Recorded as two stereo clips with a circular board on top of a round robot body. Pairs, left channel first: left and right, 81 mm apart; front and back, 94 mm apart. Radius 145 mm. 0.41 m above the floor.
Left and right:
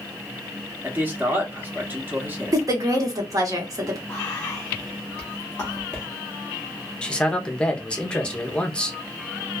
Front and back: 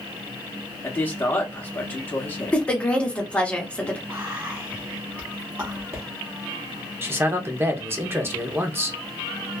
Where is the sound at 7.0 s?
155° left, 0.8 m.